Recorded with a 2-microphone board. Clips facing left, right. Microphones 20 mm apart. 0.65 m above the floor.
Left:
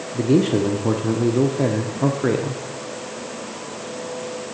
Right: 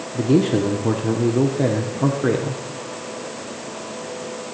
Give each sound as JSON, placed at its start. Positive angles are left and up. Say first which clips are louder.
{"t": 0.1, "sound": "a man speaking", "louder": "even", "side_deg": 5, "distance_m": 0.9}